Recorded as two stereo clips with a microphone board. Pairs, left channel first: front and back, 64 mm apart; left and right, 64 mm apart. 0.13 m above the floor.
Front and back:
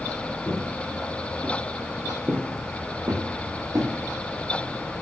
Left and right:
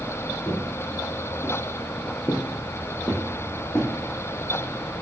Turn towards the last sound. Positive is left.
turn(degrees=155)